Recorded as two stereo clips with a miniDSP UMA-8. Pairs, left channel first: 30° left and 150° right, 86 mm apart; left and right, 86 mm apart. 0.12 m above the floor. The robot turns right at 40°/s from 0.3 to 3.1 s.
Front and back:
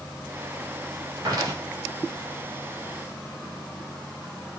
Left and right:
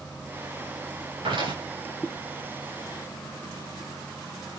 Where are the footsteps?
105° right, 6 m; by 1.6 s 90° right, 6 m.